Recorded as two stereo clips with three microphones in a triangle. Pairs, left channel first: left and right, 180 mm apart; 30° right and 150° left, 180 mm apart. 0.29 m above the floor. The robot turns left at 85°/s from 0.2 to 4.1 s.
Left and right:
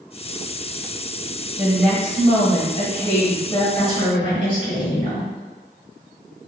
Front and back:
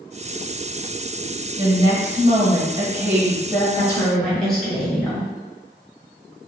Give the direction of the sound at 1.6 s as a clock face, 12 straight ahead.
5 o'clock.